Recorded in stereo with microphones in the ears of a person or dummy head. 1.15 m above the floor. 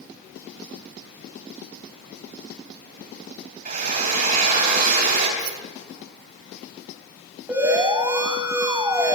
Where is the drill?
45° right (ahead or behind), 4.5 m.